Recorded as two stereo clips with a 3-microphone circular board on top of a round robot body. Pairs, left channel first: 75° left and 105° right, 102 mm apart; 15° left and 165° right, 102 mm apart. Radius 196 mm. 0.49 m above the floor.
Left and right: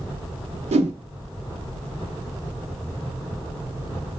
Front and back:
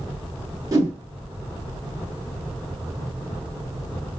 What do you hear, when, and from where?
0.7 s a whoosh: 105° right, 0.6 m